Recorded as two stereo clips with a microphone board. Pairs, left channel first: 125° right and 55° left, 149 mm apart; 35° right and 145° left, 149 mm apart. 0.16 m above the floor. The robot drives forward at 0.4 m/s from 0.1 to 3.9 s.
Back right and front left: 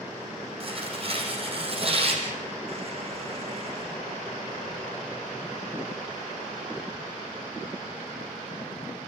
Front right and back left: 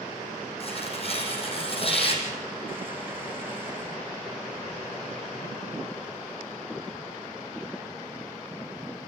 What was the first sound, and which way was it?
Tearing paper, 10° left.